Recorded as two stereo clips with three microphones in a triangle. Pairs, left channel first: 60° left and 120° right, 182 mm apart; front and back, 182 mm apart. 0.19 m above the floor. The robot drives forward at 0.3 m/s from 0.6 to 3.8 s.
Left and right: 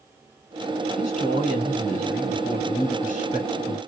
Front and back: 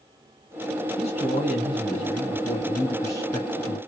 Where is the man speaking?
45° left, 2.5 m; by 3.8 s 70° left, 2.0 m.